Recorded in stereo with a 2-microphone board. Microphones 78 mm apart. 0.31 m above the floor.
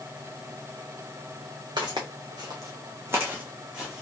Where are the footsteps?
75° right (ahead or behind), 1.3 m; by 4.0 s 5° right (ahead or behind), 1.4 m.